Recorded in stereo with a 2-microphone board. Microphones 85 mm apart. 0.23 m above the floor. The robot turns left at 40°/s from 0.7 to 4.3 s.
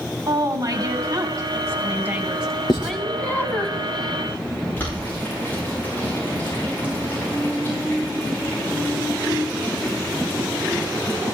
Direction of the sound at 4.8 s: 25° left (ahead or behind).